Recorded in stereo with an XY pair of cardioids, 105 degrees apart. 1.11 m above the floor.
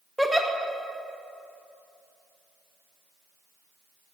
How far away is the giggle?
About 0.9 m.